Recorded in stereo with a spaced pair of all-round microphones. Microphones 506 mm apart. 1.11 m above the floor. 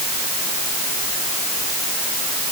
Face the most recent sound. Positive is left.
No sound to turn to.